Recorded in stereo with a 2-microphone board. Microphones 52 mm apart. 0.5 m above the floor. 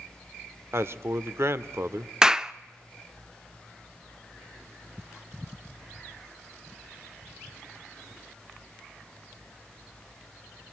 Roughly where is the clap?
Centre.